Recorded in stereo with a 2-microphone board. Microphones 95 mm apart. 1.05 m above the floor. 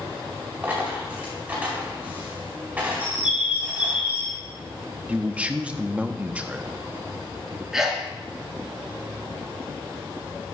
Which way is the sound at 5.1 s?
15° right (ahead or behind).